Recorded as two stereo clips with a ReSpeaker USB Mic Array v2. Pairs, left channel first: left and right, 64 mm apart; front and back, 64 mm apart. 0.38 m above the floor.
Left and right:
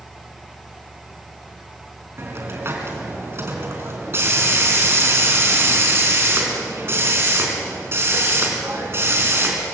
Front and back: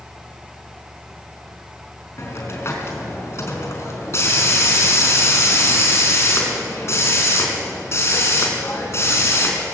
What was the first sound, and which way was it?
A hiss, 45° right.